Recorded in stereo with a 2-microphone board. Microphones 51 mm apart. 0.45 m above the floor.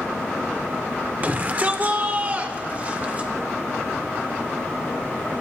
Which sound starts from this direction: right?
A shout, at 1.2 s.